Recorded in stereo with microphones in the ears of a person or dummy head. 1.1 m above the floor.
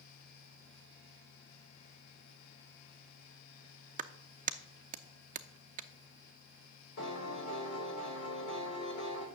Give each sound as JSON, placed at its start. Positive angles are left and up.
{"t": 4.0, "sound": "a clap", "side_deg": -35, "distance_m": 0.6}
{"t": 7.0, "sound": "a piano", "side_deg": 60, "distance_m": 2.5}